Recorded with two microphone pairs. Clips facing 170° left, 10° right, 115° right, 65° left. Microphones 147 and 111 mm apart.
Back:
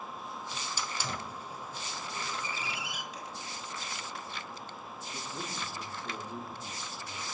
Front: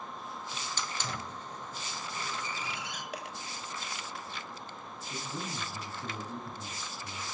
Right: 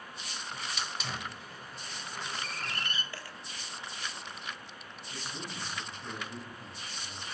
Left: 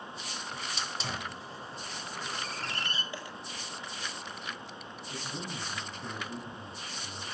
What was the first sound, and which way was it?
A hiss, 95° left.